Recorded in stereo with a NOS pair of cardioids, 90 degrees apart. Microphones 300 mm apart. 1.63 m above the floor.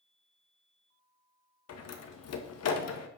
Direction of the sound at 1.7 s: 60° left.